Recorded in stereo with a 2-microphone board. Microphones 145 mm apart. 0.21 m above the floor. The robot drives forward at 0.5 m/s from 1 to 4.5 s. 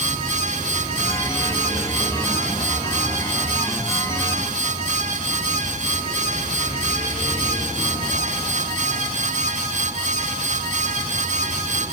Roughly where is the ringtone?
I don't hear a ringtone.